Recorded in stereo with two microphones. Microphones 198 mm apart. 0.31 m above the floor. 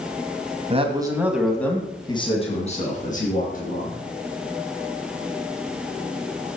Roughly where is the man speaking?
Right.